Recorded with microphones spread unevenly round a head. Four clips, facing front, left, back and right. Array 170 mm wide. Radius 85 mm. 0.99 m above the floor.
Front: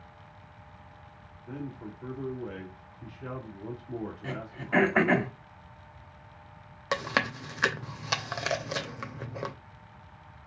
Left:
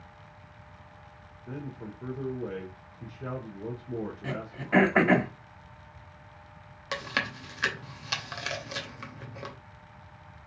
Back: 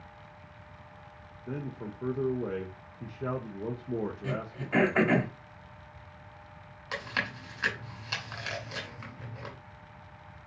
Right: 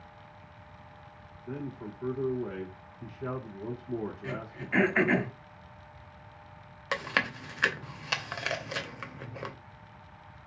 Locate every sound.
1.5 s a man speaking: 170° left, 1.0 m
4.2 s throat clearing: 80° left, 1.2 m
6.9 s chewing: 5° right, 0.7 m